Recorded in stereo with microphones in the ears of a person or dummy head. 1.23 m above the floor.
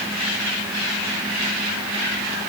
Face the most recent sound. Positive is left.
No sound to turn to.